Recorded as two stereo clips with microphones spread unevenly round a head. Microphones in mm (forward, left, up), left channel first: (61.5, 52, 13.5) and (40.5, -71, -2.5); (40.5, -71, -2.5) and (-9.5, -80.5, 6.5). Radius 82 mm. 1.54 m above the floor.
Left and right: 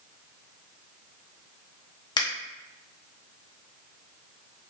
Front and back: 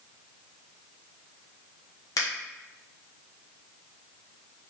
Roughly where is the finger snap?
Ahead left.